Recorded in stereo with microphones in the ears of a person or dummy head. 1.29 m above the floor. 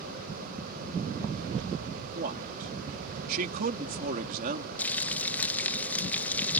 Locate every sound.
2.1 s a man speaking: 45° right (ahead or behind)
4.8 s frying: 10° left (ahead or behind)